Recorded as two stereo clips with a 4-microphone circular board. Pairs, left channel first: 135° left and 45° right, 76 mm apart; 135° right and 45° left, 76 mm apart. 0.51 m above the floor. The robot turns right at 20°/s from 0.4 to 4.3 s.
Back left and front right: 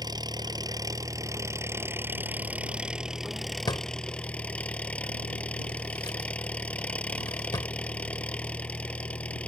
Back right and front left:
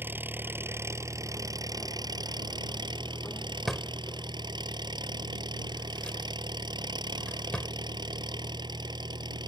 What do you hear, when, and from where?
0.0 s an engine running: 15° right; by 9.5 s 60° left
3.7 s a drawer: 140° left; by 7.7 s 150° left